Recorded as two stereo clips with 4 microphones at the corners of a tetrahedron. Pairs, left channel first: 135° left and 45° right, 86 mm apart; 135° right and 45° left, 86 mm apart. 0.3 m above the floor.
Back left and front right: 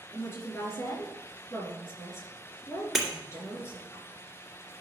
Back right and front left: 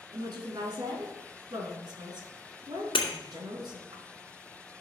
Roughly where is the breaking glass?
Behind right.